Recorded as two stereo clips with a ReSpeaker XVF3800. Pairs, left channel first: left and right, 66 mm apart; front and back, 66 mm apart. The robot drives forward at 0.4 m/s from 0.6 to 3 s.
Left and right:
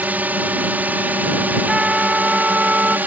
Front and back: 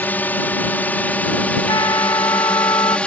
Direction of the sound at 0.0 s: 45° right.